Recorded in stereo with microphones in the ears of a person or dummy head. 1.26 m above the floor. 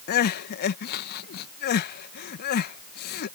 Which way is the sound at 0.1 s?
55° left (ahead or behind).